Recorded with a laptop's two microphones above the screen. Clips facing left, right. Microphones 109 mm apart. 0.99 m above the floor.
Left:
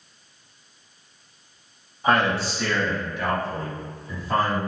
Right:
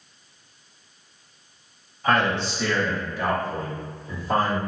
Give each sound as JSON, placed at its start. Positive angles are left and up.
{"t": 2.0, "sound": "a man speaking", "side_deg": 20, "distance_m": 1.1}